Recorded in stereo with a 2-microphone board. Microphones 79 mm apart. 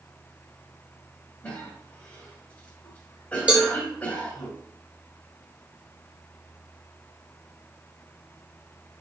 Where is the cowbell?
15° right (ahead or behind), 1.2 m.